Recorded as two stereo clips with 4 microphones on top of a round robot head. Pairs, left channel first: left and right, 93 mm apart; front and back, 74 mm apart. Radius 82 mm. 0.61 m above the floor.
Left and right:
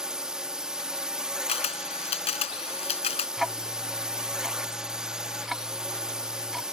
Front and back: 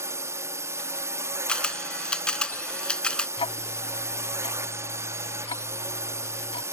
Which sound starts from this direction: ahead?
Ticking, at 3.4 s.